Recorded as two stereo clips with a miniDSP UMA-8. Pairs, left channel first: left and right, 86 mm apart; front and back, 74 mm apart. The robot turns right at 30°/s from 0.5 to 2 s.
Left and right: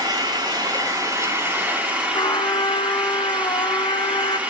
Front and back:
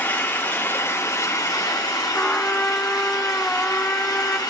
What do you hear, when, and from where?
0.0 s an engine running: 60° right, 2 m; by 4.5 s 15° right, 2 m
2.1 s a trumpet: 70° left, 0.6 m